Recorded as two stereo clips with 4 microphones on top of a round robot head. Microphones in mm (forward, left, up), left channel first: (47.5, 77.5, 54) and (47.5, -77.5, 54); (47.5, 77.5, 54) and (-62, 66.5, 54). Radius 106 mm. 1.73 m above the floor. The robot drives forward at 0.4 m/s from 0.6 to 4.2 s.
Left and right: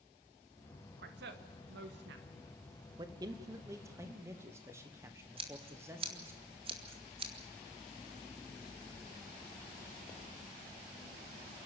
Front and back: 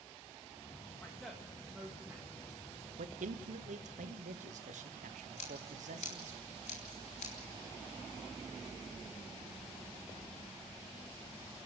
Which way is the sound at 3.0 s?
160° right.